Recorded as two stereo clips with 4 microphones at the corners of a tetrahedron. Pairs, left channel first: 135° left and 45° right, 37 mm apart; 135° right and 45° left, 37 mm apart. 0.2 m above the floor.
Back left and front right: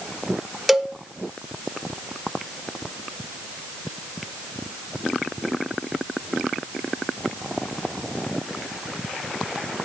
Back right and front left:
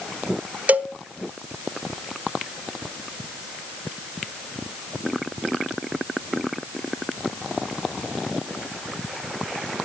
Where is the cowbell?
40° left, 0.5 m.